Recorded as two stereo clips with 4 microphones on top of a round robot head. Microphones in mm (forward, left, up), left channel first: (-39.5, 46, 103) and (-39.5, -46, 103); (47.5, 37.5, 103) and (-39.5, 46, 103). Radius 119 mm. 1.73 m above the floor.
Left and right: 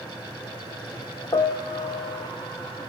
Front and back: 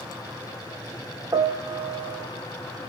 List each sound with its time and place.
1.3 s a piano: 130° left, 0.9 m